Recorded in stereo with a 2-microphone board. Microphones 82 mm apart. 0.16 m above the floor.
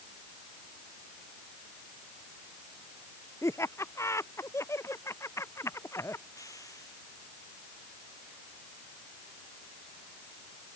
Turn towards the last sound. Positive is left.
turn(degrees=45)  # may be behind; listen again after turning